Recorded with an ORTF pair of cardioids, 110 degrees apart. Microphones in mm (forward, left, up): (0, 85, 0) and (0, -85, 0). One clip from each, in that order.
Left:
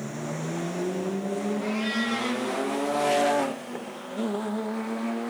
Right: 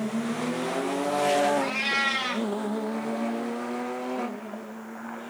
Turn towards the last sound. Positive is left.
turn(degrees=-50)